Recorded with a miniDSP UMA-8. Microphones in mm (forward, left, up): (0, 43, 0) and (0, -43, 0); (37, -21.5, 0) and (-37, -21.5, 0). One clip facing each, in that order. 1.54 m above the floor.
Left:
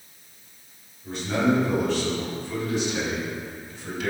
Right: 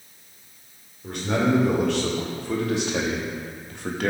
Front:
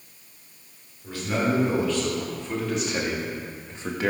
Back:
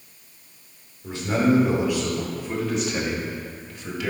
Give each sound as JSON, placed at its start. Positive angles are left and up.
{"t": 1.0, "sound": "a man speaking", "azimuth_deg": -115, "distance_m": 4.5}